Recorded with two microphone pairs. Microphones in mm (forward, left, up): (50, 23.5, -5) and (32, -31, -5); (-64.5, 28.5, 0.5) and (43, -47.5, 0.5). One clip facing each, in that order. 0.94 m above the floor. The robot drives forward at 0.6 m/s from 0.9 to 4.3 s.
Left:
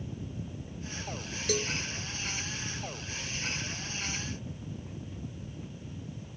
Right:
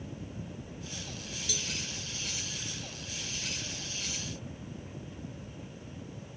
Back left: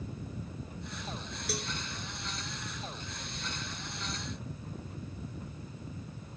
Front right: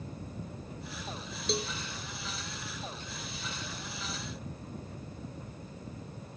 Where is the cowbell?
30° left.